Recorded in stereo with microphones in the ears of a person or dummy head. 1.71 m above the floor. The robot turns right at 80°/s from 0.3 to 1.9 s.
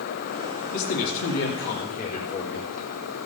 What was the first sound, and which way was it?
A man speaking, 40° left.